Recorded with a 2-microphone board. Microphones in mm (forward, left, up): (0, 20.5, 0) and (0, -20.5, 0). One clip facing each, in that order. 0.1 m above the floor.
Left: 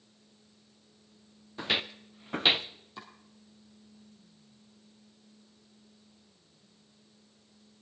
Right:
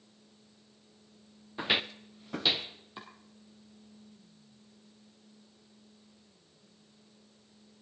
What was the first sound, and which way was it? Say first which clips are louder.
Footsteps: right 1 dB; 20° right (ahead or behind).